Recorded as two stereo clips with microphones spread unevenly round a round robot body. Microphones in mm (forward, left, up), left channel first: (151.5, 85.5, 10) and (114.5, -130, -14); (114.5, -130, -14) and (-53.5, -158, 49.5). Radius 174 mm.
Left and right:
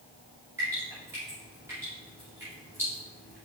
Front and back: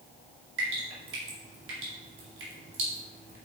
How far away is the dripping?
About 2 m.